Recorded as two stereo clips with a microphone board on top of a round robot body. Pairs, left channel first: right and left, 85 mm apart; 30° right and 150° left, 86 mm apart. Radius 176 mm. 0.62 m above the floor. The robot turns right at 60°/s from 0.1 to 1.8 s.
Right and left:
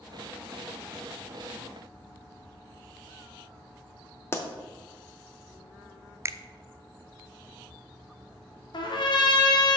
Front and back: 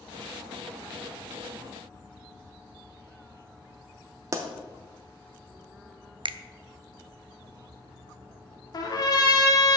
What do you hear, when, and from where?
4.3 s a pop: 155° right, 0.6 m
6.2 s a finger snap: 145° left, 0.5 m
8.7 s a trumpet: 70° right, 1.7 m